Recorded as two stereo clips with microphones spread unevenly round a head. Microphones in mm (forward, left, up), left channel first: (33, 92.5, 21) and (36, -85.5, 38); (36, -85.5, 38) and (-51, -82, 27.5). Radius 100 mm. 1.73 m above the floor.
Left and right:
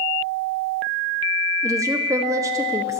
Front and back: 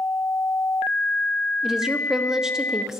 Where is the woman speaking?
90° right, 0.5 m.